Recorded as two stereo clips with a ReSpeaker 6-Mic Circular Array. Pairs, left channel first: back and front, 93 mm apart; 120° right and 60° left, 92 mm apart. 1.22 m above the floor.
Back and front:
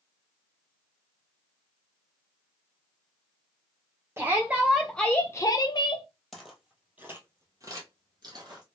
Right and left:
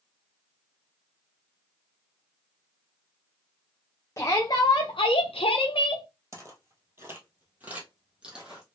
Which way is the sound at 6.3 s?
90° left.